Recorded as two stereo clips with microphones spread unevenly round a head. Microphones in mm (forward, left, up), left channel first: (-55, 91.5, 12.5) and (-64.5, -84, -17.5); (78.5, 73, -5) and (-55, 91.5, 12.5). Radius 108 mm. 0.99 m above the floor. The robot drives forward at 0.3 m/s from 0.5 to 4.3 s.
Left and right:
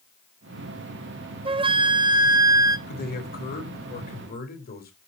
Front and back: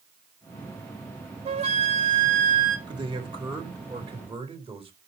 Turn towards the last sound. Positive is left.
turn(degrees=125)